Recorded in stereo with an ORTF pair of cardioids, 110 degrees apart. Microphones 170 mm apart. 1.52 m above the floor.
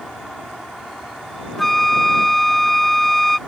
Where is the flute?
Straight ahead.